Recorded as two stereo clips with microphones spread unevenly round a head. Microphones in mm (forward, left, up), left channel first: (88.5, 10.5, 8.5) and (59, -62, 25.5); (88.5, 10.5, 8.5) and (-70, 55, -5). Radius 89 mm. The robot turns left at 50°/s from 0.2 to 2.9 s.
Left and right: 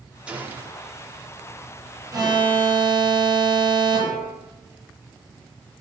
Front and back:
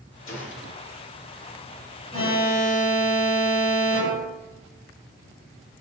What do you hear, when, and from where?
0.3 s a gunshot: 35° right, 4.5 m; by 1.0 s 70° right, 4.5 m
2.1 s an alarm: 75° right, 8.5 m; by 4.4 s 115° right, 8.5 m